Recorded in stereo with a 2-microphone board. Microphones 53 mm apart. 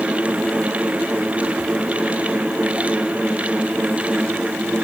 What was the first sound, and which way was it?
Only background noise.